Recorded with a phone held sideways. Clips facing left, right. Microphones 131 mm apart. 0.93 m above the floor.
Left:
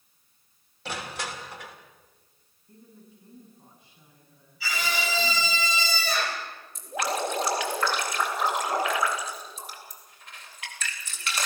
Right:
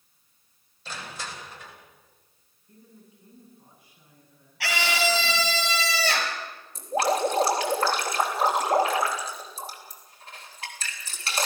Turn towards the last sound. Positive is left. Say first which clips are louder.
# right 5 dB
turn(degrees=-35)  # may be behind; listen again after turning